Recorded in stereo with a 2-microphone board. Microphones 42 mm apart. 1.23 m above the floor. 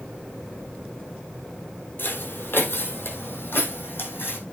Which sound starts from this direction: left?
Footsteps, at 2.0 s.